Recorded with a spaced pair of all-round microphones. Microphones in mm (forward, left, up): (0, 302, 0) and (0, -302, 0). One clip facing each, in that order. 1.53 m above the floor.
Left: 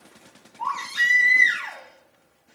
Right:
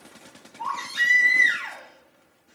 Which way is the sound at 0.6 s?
30° left (ahead or behind).